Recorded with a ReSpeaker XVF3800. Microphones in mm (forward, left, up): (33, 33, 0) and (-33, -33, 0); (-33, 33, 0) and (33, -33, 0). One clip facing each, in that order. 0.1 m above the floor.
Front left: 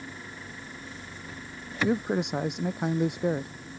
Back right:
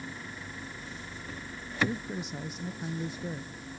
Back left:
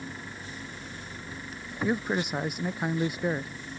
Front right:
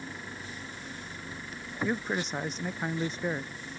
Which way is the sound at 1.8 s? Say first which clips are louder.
Front left 9 dB, back left 3 dB; 55° left.